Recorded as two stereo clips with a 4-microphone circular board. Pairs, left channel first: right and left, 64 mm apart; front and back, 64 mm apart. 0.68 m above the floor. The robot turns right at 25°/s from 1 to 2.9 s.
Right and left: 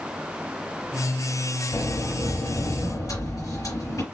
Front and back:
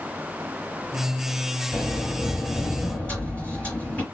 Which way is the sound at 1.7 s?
100° right.